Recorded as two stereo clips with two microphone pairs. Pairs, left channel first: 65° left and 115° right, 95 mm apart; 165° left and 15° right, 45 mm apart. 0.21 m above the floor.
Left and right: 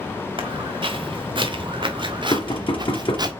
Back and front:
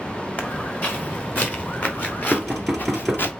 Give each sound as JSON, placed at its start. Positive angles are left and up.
{"t": 0.4, "sound": "footsteps", "azimuth_deg": -145, "distance_m": 4.0}
{"t": 2.3, "sound": "knocking", "azimuth_deg": 75, "distance_m": 1.9}